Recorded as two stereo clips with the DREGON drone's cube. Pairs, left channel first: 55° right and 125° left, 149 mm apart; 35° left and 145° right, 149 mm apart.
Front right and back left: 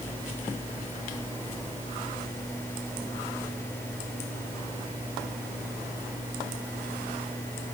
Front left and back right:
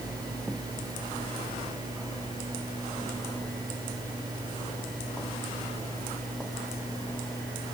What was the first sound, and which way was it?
Only background noise.